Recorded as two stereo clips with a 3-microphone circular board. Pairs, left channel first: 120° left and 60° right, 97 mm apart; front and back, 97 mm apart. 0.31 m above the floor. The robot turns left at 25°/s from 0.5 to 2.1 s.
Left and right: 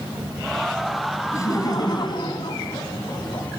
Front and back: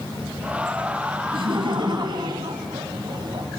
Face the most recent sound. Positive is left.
turn(degrees=150)